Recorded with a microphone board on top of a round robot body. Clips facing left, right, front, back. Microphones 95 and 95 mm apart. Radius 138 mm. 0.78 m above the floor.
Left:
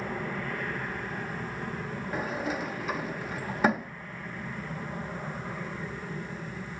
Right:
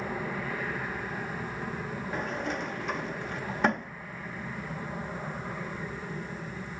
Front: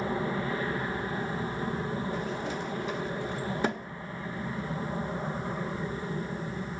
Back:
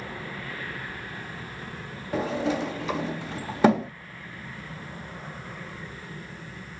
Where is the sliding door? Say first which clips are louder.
Left 2 dB, back 6 dB; 175° left.